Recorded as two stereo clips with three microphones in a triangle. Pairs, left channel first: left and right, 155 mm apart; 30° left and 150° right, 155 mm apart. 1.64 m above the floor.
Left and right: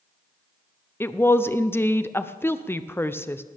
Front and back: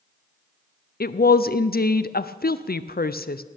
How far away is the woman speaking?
About 0.5 m.